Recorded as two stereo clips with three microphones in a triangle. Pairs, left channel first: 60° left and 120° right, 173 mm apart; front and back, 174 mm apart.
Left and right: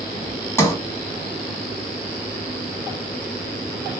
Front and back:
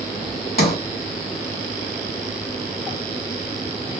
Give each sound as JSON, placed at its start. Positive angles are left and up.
{"t": 0.6, "sound": "a sliding door", "azimuth_deg": -15, "distance_m": 1.0}